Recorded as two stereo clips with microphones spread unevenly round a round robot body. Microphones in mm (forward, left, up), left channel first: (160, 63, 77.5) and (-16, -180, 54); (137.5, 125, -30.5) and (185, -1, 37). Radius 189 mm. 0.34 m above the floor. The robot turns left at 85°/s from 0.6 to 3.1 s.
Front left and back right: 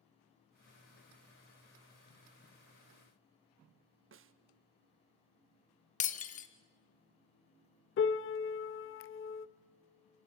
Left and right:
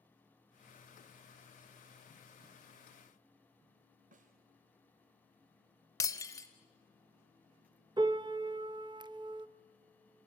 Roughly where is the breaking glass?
Behind left.